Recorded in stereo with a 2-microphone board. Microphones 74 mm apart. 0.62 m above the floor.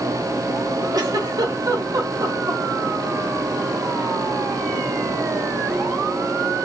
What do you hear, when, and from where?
0.9 s a giggle: 60° right (ahead or behind), 0.8 m